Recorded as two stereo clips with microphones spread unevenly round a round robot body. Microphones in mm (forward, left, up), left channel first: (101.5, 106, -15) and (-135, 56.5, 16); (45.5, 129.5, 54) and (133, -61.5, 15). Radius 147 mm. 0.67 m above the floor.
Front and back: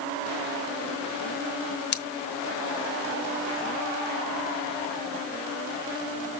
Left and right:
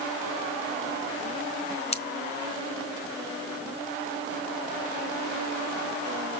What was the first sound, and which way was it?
Scissors, 55° left.